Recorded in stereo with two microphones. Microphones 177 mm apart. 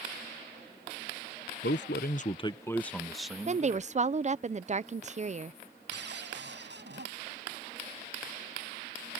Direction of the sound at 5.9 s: 80° right.